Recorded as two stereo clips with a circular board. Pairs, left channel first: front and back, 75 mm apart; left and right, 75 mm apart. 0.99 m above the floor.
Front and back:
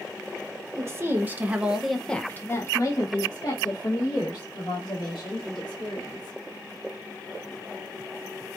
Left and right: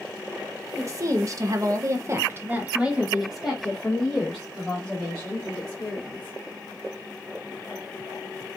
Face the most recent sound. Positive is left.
turn(degrees=15)